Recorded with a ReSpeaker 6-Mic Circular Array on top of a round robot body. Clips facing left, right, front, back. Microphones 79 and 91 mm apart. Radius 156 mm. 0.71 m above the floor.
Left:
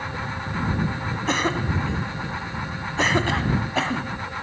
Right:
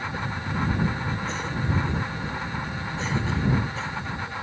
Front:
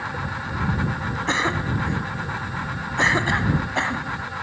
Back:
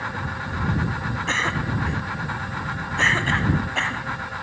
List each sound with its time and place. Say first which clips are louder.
1.3 s a cough: left 5 dB, front 2 dB; 75° left